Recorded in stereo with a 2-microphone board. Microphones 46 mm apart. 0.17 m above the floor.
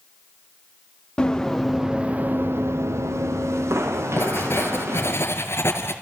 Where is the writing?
60° left (ahead or behind), 3 m.